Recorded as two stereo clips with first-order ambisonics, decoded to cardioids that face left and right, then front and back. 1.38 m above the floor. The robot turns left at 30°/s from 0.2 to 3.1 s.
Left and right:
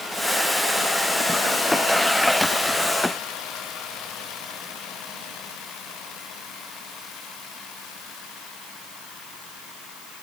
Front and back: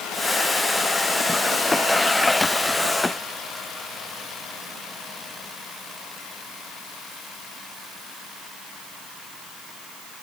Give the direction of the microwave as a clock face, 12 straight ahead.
No microwave in this recording.